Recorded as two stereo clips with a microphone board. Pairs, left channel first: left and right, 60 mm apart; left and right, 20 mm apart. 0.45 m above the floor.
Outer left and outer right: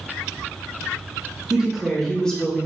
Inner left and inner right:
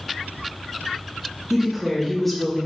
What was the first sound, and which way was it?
A woman speaking, 15° right (ahead or behind).